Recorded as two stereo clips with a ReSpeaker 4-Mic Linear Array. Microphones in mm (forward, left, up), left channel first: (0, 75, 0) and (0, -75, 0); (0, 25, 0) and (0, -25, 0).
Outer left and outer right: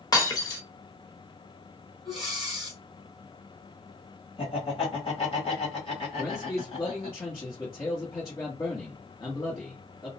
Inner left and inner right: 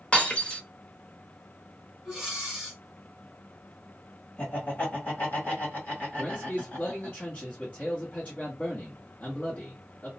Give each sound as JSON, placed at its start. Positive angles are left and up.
{"t": 0.1, "sound": "breaking glass", "side_deg": 25, "distance_m": 0.8}
{"t": 2.0, "sound": "breathing", "side_deg": -5, "distance_m": 1.5}
{"t": 4.4, "sound": "laughter", "side_deg": 40, "distance_m": 1.6}
{"t": 6.2, "sound": "a man speaking", "side_deg": 30, "distance_m": 1.1}